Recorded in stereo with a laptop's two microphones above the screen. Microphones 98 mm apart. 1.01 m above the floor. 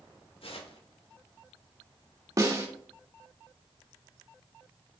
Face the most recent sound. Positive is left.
turn(degrees=-30)  # may be behind; listen again after turning